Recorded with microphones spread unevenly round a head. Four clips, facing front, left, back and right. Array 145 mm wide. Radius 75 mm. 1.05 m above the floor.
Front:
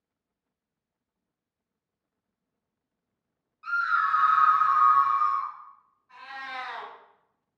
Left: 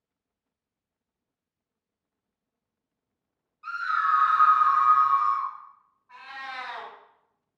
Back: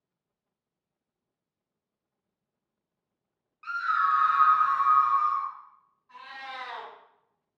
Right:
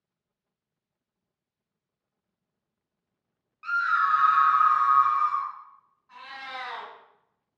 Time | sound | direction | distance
3.6 | a scream | 90° right | 1.3 m
6.1 | a cat meowing | 110° right | 1.8 m